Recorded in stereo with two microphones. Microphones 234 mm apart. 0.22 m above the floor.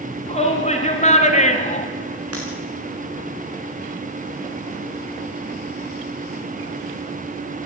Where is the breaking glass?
85° right, 6 m.